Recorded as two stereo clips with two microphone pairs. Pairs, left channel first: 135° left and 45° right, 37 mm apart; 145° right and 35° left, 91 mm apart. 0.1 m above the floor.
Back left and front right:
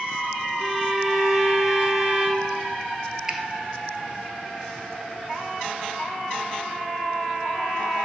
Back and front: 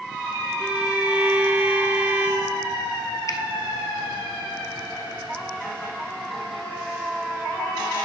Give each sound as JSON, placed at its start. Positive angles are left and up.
{"t": 0.6, "sound": "a violin", "azimuth_deg": -5, "distance_m": 1.6}
{"t": 3.3, "sound": "a finger snap", "azimuth_deg": -110, "distance_m": 1.5}